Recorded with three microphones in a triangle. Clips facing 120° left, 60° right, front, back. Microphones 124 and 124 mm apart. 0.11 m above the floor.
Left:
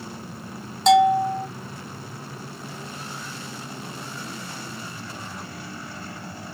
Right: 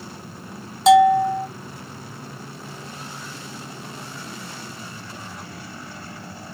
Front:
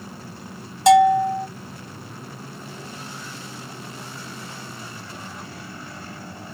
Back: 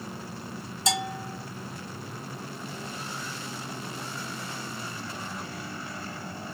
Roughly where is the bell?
Ahead left.